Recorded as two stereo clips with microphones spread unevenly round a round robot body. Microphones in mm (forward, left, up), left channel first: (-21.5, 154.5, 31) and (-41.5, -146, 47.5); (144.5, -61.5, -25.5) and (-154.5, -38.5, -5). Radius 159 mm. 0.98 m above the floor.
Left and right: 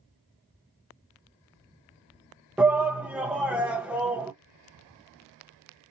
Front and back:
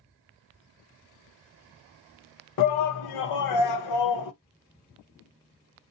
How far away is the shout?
About 0.7 m.